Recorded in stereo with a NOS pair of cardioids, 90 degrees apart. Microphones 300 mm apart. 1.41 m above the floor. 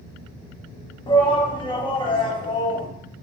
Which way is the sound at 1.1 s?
15° left.